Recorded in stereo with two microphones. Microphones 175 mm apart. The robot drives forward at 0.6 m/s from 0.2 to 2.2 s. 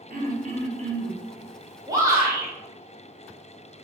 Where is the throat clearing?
55° right (ahead or behind), 0.8 m; by 1.2 s 40° right (ahead or behind), 1.1 m.